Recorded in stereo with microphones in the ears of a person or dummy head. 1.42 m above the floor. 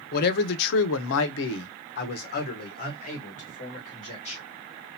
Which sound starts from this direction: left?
A man speaking, at 0.1 s.